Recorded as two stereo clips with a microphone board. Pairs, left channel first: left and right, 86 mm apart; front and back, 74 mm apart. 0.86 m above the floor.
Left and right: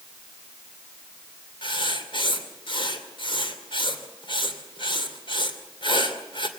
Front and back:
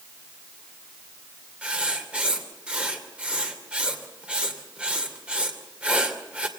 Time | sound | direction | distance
1.6 | writing | 105° left | 2.5 m